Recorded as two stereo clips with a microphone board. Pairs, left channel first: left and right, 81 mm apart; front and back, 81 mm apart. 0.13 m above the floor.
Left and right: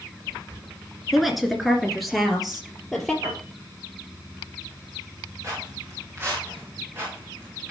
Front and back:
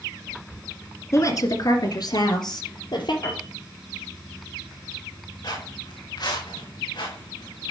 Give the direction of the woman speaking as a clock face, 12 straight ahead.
12 o'clock.